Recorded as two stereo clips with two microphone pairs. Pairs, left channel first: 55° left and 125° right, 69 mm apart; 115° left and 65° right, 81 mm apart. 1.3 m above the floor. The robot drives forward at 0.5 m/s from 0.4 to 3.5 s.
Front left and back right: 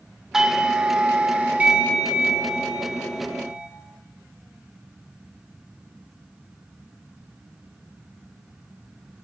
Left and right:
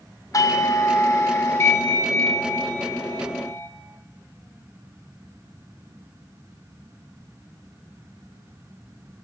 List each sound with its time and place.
0.3 s a doorbell: 155° left, 0.6 m; by 3.7 s 175° left, 2 m